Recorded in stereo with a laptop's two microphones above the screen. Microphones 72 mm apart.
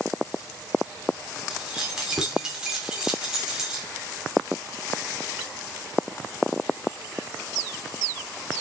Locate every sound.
1.5 s keys jangling: 10° right (ahead or behind), 2.0 m